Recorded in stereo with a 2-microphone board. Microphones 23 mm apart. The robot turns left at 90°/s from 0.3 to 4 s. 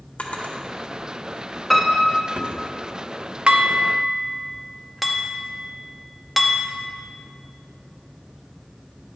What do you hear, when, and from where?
0.2 s a drawer: 65° left (ahead or behind), 1.3 m; by 2.6 s 85° right, 1.3 m
1.7 s a piano: 15° left, 1.2 m; by 2.3 s 40° right, 1.2 m
3.5 s dishes clattering: 50° right (ahead or behind), 0.8 m; by 6.7 s 5° right (ahead or behind), 0.8 m